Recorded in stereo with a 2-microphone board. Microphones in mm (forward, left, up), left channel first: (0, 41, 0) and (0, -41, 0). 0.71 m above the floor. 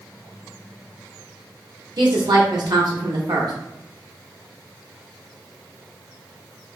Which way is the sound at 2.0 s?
60° right (ahead or behind).